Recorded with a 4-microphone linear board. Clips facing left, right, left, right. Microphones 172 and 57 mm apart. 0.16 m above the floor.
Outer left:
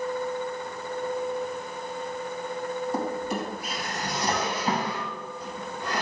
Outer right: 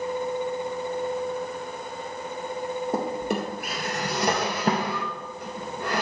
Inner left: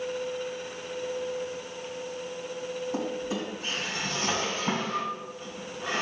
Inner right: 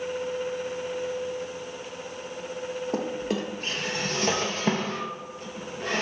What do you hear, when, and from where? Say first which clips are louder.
2.9 s a drawer: outer right 2 dB, inner right 4 dB; 60° right (ahead or behind), 1.8 m